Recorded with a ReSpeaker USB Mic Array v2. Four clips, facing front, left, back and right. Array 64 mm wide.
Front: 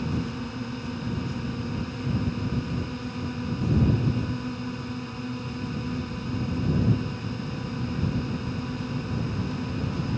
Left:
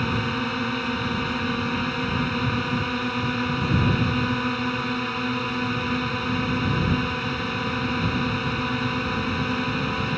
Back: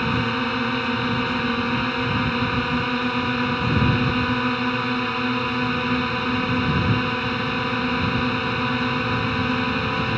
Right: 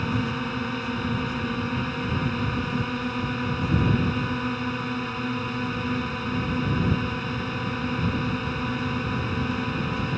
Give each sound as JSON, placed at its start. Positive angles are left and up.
{"t": 0.0, "sound": "a drone", "azimuth_deg": 165}